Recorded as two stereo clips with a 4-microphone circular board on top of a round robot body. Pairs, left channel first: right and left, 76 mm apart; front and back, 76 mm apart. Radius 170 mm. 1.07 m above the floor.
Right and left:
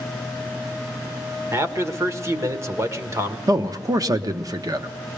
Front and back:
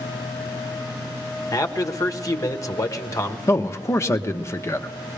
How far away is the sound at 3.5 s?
About 1.1 m.